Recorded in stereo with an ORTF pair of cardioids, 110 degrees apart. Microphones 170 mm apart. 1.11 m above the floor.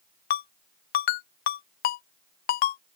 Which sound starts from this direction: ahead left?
A ringtone, at 0.3 s.